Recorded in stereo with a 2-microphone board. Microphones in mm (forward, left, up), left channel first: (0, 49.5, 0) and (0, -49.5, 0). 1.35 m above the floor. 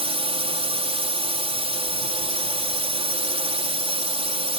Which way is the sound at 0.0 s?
75° right (ahead or behind).